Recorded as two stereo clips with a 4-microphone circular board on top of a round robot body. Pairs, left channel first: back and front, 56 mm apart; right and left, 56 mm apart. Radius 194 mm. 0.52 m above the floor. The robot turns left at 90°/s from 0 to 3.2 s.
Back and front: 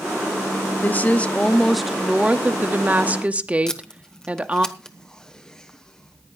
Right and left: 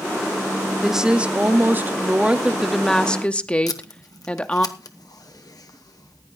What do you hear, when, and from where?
0.8 s a woman speaking: 175° left, 1.2 m; by 4.7 s 40° right, 1.2 m
3.7 s tape being pulled: 100° right, 1.1 m